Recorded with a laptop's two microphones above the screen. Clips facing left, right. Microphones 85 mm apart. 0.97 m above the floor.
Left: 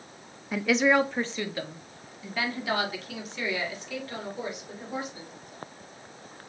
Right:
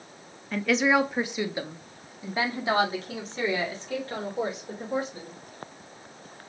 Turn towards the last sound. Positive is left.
turn(degrees=-40)  # may be behind; listen again after turning